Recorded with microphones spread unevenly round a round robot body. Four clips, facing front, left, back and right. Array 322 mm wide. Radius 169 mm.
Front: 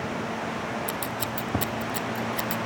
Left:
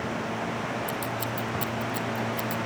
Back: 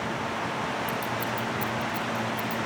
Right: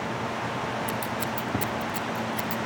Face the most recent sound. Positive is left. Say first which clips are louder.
# right 1 dB, back 1 dB
turn(degrees=-25)